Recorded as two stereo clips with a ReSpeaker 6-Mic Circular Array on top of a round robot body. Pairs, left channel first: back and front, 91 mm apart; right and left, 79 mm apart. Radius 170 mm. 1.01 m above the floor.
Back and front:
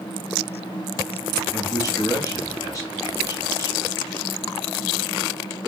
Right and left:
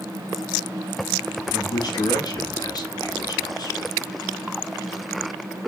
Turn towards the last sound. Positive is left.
turn(degrees=-125)